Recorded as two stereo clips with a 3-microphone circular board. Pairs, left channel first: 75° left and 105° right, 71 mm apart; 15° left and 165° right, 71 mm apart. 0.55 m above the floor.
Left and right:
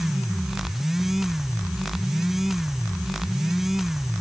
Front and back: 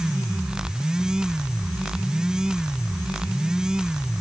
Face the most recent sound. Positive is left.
No sound to turn to.